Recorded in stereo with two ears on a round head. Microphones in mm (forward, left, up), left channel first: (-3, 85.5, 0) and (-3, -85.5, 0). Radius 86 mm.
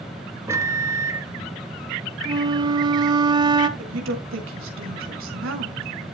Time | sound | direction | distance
0.5 | a microwave | 15° right (ahead or behind) | 0.9 m
2.2 | a flute | 25° right (ahead or behind) | 1.0 m
3.8 | a woman speaking | 75° right (ahead or behind) | 4 m